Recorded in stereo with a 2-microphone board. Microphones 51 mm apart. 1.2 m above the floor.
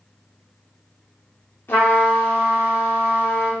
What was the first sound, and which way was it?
A trumpet, 50° left (ahead or behind).